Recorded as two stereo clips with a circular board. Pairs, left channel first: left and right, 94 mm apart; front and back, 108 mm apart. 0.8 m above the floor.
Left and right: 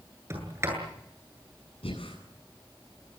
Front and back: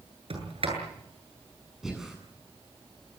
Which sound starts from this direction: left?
Breathing, at 1.8 s.